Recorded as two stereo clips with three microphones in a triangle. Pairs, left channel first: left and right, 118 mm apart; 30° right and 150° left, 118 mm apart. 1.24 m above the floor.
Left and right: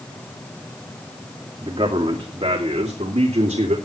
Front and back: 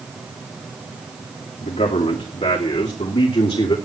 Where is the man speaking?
45° right, 2.5 m; by 3.8 s 70° right, 3 m.